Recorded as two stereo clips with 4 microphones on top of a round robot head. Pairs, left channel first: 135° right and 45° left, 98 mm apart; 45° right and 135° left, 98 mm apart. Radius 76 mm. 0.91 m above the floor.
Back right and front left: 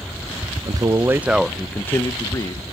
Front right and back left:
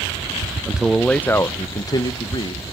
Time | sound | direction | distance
0.7 | a man speaking | 60° left | 0.6 m